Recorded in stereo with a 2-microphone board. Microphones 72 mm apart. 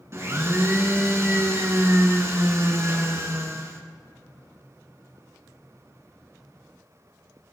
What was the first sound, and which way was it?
A blender, 40° right (ahead or behind).